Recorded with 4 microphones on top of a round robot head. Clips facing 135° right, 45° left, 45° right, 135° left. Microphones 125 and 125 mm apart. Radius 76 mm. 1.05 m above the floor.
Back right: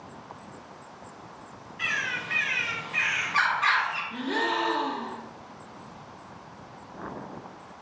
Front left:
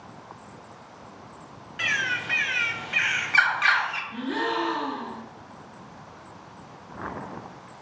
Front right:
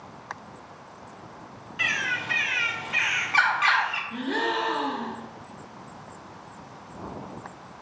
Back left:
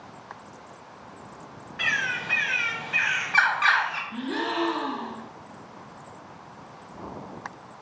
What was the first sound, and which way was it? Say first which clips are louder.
A bird: front left 3 dB, even; 30° left.